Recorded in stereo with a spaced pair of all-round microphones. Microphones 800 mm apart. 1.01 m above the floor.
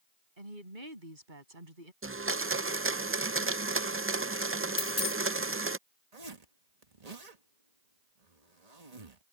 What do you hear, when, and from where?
0.4 s a woman speaking: 85° right
2.0 s a blender: 20° right (ahead or behind)
4.8 s a dropped coin: 60° left (ahead or behind)
6.1 s a zipper: 50° right (ahead or behind)